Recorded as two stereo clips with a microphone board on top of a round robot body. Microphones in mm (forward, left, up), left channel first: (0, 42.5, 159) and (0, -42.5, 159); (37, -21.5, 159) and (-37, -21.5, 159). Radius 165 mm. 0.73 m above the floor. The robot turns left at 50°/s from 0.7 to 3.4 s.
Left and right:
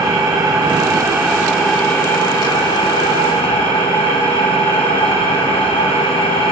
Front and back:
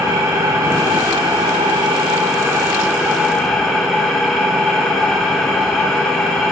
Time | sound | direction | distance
0.0 | an engine running | 135° right | 1.1 m